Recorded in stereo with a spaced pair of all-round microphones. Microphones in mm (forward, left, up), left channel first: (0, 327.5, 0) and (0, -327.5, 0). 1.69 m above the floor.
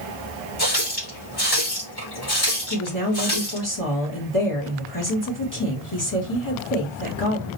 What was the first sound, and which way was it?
A running tap, 35° left (ahead or behind).